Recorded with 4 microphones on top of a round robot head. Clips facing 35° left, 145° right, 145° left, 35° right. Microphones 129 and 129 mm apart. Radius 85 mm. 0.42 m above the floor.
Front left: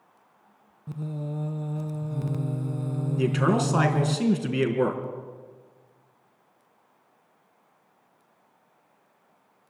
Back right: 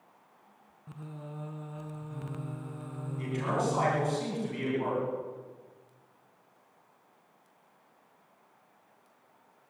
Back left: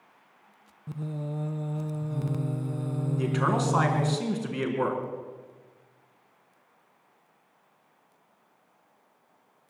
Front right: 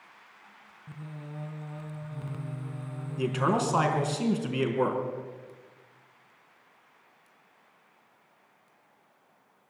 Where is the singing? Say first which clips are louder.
Front left 10 dB, back left 9 dB; 90° left, 0.8 m.